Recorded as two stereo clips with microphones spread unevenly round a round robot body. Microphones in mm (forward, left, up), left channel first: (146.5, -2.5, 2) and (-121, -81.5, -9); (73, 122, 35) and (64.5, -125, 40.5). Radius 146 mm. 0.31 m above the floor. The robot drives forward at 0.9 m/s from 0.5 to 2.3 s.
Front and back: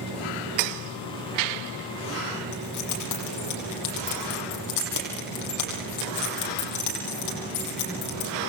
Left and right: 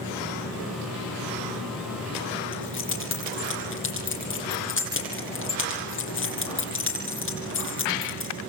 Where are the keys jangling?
50° left, 9.5 m.